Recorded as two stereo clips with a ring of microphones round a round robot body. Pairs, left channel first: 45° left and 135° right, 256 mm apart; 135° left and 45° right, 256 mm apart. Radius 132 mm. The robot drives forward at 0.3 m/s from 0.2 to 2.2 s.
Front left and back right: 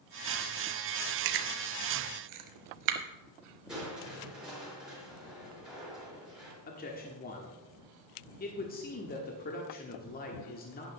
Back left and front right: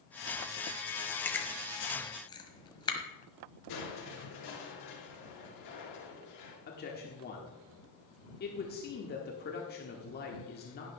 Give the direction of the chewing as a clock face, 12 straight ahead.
5 o'clock.